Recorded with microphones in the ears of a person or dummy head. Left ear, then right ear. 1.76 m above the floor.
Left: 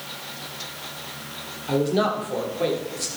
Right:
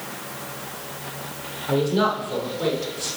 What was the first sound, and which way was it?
A man speaking, 15° left (ahead or behind).